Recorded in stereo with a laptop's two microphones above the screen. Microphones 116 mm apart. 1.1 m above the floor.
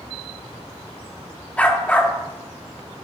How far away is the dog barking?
About 0.6 m.